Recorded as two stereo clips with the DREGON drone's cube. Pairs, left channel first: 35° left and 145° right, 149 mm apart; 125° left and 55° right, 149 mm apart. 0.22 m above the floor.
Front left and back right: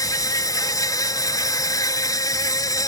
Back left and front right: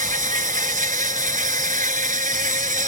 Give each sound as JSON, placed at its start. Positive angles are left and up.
{"t": 0.0, "sound": "an insect", "azimuth_deg": -30}